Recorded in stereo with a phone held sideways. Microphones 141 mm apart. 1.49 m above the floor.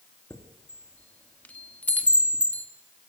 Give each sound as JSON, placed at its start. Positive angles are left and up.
{"t": 0.3, "sound": "a chime", "side_deg": 10, "distance_m": 2.0}